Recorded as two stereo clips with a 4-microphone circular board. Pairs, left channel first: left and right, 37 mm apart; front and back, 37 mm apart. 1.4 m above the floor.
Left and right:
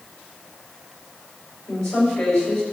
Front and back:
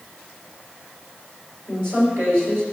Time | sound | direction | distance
1.7 | a woman speaking | 165° left | 5.5 m